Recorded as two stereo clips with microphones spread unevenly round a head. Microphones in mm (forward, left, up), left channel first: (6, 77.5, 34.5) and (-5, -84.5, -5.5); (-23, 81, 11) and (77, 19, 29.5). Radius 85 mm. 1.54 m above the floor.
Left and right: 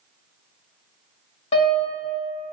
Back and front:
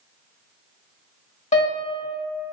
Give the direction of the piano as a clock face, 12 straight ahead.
7 o'clock.